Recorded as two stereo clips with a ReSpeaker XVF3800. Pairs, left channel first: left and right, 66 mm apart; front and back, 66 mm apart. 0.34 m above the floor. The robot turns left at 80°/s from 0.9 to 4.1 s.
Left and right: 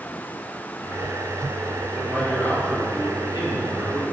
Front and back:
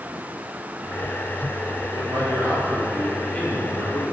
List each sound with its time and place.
1.9 s a man speaking: 175° right, 4.5 m; by 4.1 s 10° left, 4.5 m